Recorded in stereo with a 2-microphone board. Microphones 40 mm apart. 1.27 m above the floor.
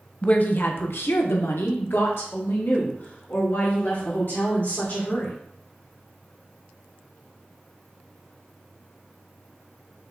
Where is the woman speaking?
30° left (ahead or behind), 0.7 m; by 5.3 s 55° left (ahead or behind), 3 m.